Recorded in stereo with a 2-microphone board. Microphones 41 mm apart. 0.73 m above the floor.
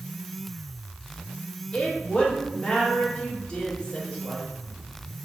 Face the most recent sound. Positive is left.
turn(degrees=25)  # may be behind; listen again after turning